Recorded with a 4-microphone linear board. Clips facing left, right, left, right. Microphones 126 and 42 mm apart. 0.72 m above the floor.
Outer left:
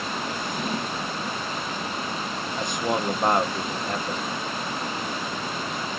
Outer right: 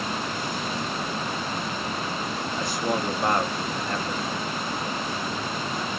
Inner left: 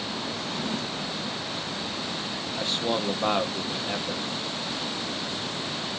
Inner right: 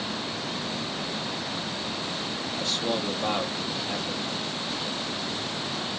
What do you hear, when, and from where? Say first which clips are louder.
0.3 s a drawer: outer left 1 dB, inner left 1 dB; 60° left (ahead or behind), 0.6 m
2.6 s a man speaking: outer left 1 dB, inner left 2 dB; 20° left (ahead or behind), 0.8 m